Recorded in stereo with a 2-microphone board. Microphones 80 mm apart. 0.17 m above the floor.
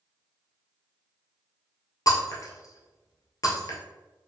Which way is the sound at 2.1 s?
45° left (ahead or behind).